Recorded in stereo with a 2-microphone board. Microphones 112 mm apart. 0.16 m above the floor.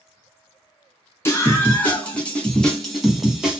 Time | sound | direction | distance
1.2 | a scream | 20° left (ahead or behind) | 2 m